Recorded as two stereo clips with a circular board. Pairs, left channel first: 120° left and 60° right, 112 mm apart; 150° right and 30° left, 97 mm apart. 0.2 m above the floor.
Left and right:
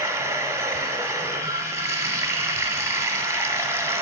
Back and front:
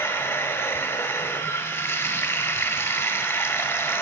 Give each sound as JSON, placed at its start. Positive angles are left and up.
{"t": 0.0, "sound": "running water", "azimuth_deg": -105, "distance_m": 0.7}